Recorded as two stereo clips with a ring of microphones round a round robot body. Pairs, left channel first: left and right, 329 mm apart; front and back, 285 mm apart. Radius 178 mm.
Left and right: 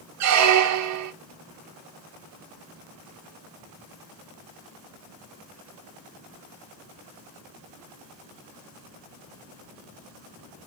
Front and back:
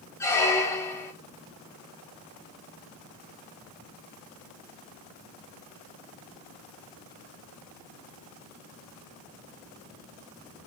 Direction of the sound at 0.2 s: 80° right.